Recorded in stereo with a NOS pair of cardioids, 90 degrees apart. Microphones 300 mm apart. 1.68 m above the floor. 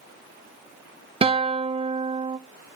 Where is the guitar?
20° right, 0.6 m.